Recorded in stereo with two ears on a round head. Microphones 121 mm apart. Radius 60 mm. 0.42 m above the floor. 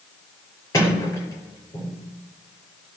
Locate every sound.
0.7 s a sliding door: 25° left (ahead or behind), 6.5 m